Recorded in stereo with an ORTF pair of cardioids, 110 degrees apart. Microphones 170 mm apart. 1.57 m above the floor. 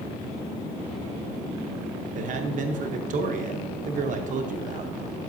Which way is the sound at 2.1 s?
50° right.